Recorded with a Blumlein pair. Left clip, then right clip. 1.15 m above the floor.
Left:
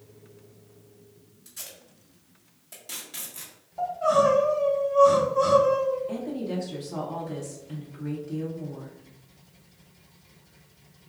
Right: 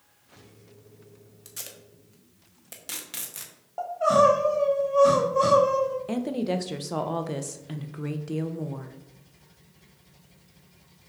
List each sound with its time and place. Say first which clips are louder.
1.4 s tape being pulled: right 1 dB; 65° right, 0.9 m
3.8 s crying: right 2 dB; 30° right, 1.1 m
6.1 s a woman speaking: right 4 dB; 35° right, 0.6 m